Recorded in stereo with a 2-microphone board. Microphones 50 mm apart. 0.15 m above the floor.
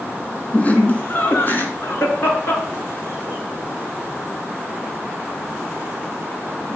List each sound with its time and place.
0.5 s laughter: 30° left (ahead or behind), 1.5 m; by 6.8 s 45° left (ahead or behind), 4 m